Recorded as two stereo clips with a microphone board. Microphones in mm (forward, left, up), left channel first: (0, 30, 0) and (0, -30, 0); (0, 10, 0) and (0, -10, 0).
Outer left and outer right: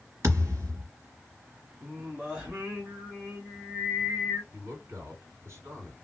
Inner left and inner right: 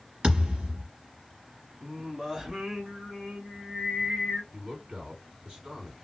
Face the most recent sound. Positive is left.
turn(degrees=-50)  # may be behind; listen again after turning